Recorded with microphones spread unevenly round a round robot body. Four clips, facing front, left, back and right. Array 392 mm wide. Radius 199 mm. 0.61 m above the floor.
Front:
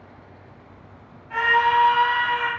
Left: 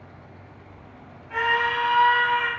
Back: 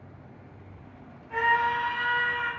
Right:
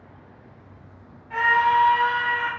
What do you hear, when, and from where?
1.3 s a scream: 165° left, 1.5 m; by 2.5 s 125° left, 1.6 m